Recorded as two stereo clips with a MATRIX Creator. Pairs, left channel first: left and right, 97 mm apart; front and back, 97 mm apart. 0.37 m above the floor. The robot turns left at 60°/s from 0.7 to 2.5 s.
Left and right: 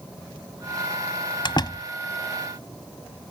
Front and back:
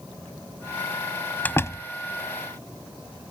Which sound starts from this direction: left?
A door slam, at 1.4 s.